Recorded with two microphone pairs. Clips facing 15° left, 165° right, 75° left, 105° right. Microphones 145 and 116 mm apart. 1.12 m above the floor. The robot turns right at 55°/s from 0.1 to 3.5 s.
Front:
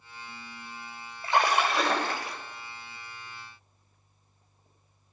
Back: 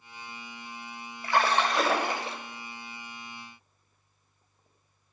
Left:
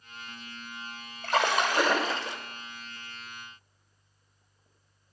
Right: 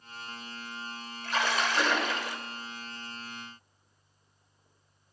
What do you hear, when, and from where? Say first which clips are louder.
1.2 s a splash: even, left 4 dB; 75° left, 1.1 m; by 2.4 s 140° left, 1.1 m